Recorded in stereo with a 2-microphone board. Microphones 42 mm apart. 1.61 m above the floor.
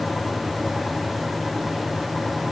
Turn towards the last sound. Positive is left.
No sound to turn to.